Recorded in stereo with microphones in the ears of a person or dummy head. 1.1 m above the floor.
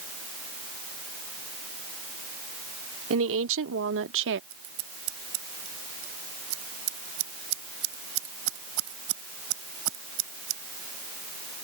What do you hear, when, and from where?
3.1 s a woman speaking: 70° right (ahead or behind); by 4.4 s 60° right (ahead or behind)
4.5 s scissors: 85° right